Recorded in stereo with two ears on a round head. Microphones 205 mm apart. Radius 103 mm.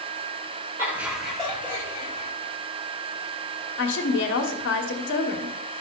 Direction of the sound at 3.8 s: 55° left (ahead or behind).